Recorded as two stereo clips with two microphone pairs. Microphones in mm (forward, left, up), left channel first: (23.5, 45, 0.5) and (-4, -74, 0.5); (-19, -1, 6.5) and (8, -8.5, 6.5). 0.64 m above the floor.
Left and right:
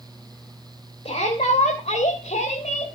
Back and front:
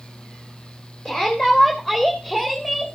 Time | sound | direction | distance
1.1 | a shout | 100° left | 2.5 m